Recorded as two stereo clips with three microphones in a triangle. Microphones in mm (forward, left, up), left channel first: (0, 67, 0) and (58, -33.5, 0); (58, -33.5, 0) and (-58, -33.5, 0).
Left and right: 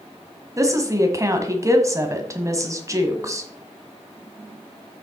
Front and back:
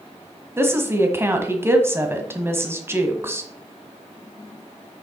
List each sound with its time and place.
0.6 s a woman speaking: 115° right, 1.4 m